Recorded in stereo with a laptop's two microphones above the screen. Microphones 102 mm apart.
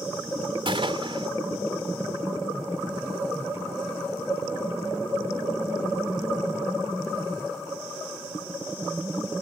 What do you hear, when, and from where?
0.7 s a gunshot: 55° right (ahead or behind)